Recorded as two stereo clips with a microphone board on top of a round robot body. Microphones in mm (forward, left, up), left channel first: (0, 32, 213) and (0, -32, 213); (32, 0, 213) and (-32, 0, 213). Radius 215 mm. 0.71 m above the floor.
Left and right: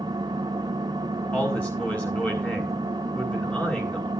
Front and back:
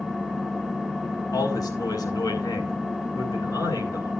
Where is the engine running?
95° right, 1.7 m.